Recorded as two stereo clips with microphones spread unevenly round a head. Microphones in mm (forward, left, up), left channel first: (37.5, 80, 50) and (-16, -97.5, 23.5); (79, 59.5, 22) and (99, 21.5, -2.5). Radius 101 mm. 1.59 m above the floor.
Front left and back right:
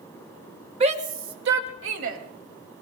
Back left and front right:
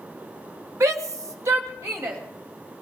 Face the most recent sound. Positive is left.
turn(degrees=-95)